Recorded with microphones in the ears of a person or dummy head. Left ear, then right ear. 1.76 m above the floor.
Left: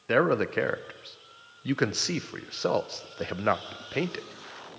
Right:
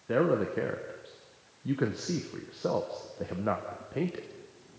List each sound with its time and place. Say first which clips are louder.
0.1 s a man speaking: left 3 dB; 45° left (ahead or behind), 0.9 m